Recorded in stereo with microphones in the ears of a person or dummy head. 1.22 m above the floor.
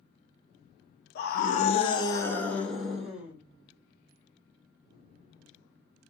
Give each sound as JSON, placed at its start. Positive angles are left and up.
{"t": 1.1, "sound": "a scream", "side_deg": 55, "distance_m": 0.8}